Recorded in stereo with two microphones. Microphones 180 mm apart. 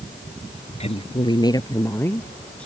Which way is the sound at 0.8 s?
35° left (ahead or behind).